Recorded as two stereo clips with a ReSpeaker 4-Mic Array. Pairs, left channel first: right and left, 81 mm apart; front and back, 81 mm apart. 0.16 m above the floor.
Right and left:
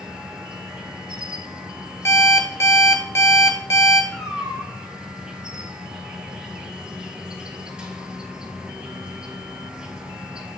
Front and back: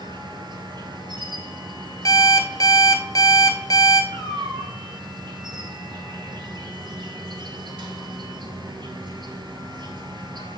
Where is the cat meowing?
175° left, 3 m.